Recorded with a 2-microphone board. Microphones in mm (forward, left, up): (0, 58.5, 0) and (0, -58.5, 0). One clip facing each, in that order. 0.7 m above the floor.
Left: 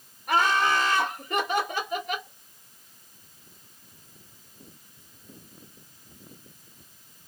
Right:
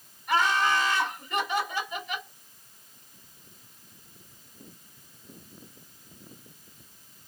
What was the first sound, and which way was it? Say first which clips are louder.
Laughter: left 1 dB; 55° left (ahead or behind).